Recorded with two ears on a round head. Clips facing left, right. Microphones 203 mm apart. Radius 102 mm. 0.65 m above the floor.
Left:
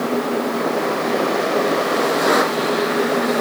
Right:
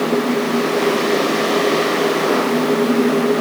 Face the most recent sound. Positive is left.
No sound to turn to.